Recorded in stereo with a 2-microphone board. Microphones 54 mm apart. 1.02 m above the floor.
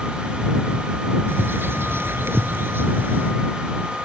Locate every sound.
1.3 s a bird: 45° right (ahead or behind)